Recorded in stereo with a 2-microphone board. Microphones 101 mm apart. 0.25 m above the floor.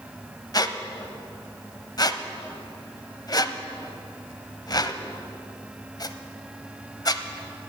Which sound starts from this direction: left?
A squeak, at 0.5 s.